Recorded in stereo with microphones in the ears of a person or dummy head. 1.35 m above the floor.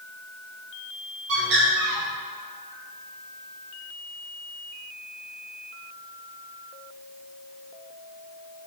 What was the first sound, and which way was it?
A bird, 75° right (ahead or behind).